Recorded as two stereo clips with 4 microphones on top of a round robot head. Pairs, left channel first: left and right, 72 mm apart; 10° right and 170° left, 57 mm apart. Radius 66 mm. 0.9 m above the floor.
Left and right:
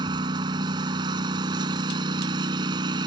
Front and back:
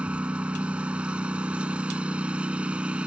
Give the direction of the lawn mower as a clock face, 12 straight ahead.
4 o'clock.